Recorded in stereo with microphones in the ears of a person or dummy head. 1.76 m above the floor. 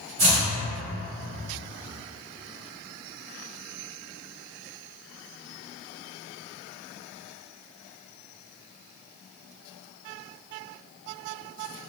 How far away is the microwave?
No microwave in this recording.